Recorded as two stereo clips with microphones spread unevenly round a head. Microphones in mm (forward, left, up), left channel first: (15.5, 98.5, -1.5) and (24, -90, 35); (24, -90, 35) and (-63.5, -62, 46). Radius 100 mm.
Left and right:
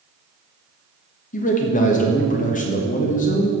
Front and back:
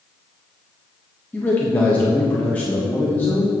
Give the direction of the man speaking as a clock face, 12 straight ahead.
10 o'clock.